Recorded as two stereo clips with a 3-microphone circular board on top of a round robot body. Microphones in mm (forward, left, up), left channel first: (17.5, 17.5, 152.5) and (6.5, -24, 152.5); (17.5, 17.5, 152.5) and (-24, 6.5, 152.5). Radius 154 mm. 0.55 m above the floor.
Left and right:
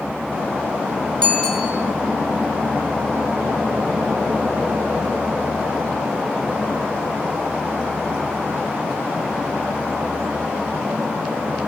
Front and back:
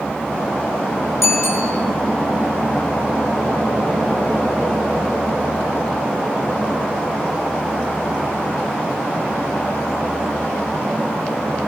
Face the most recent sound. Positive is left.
turn(degrees=5)